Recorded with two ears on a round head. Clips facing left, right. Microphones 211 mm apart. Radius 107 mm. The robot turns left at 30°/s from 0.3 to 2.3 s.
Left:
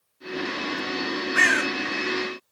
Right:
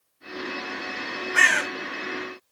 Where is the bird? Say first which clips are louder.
Left 4 dB; 55° right (ahead or behind), 3.5 m; by 1.7 s 45° right (ahead or behind), 3.5 m.